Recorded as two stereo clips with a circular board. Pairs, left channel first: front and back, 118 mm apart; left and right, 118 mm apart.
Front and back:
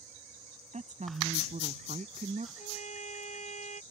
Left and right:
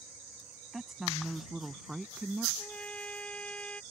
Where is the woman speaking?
175° right.